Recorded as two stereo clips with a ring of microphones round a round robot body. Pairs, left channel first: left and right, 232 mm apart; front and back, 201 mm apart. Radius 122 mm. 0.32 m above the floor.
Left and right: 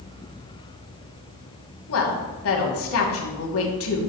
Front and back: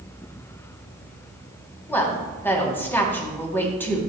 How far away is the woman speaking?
About 2.5 m.